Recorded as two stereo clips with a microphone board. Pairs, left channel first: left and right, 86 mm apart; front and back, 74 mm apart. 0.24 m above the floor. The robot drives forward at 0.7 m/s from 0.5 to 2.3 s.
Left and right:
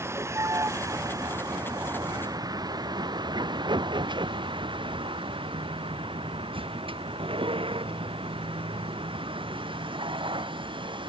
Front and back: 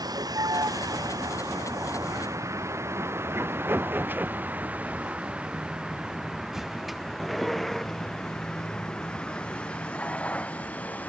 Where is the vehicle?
150° right; by 11.1 s 70° right.